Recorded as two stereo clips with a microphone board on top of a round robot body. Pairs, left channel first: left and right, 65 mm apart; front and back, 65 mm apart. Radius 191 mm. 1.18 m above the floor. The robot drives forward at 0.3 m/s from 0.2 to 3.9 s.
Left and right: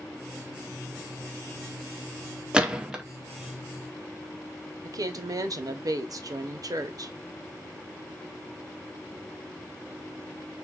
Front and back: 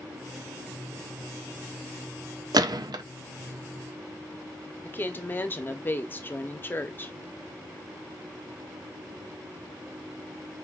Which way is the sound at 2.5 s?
165° right.